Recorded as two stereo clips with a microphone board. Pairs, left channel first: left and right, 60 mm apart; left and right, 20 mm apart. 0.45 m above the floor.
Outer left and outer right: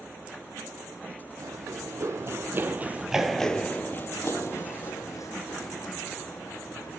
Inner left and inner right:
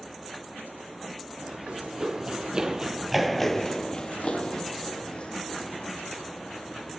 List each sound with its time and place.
1.4 s running footsteps: 65° right (ahead or behind), 1.5 m; by 7.0 s 75° left (ahead or behind), 3 m